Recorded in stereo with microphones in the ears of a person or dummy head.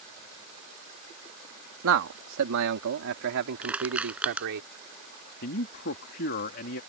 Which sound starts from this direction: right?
A man speaking, at 1.8 s.